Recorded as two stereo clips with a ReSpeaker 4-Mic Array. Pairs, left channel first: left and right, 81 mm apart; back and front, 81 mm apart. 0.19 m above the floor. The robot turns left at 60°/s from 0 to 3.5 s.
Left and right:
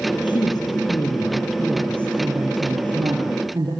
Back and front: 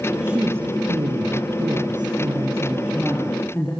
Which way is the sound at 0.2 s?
75° left.